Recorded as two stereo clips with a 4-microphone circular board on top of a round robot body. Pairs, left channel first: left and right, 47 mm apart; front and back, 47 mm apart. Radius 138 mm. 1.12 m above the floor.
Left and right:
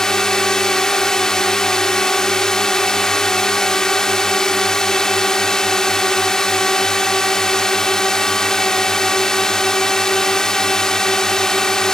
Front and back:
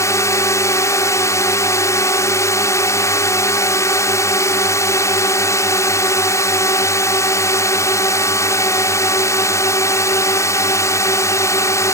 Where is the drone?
10° left.